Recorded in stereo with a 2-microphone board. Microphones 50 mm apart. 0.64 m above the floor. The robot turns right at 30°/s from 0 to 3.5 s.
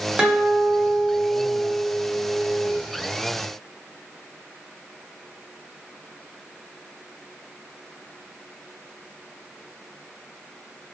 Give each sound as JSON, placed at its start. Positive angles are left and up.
{"t": 0.2, "sound": "a guitar", "side_deg": -20, "distance_m": 0.7}